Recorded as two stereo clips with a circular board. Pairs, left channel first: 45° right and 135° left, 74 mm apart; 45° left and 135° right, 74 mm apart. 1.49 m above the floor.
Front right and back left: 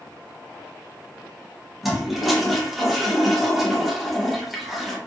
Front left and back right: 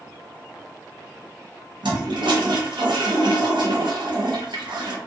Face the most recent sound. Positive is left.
turn(degrees=-135)